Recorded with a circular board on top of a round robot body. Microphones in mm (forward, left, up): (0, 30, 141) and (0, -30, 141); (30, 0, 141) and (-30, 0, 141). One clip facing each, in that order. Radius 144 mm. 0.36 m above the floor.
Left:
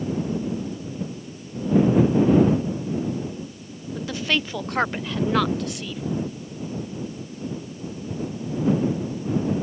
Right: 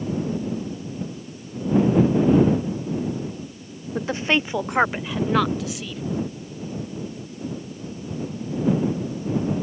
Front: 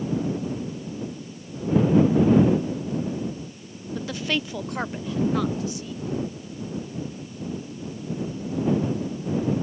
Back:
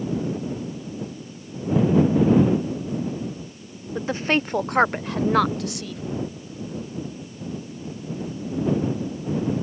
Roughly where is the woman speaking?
Behind right.